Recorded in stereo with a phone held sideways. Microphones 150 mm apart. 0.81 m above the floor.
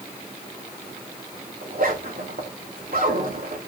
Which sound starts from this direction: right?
A zipper, at 1.6 s.